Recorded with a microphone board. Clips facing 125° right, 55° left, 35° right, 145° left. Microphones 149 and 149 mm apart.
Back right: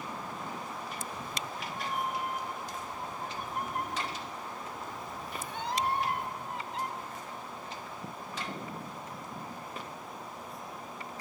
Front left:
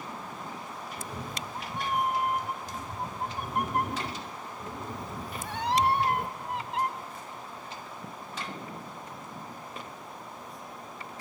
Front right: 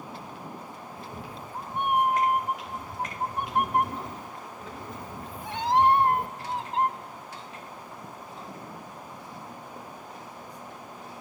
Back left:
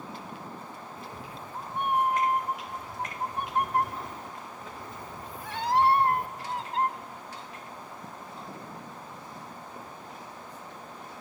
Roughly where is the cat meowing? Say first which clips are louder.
Front left 1 dB, front right 2 dB; ahead left.